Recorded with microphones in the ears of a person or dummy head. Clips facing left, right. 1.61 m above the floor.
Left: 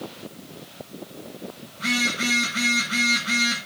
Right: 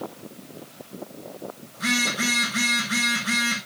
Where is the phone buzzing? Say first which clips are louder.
Even; 55° right (ahead or behind), 7 m.